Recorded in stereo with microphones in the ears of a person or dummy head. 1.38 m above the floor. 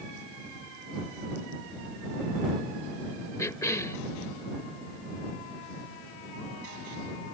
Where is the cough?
15° left (ahead or behind).